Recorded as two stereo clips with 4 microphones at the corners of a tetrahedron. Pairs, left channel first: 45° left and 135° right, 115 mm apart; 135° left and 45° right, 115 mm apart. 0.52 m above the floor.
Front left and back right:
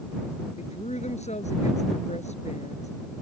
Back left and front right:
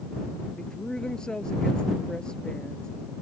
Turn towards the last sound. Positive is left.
turn(degrees=50)